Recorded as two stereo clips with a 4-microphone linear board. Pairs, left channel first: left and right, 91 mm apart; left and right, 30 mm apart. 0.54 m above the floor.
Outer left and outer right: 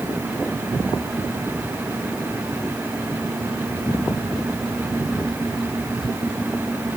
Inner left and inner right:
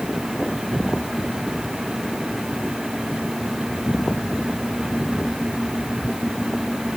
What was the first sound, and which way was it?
Only background noise.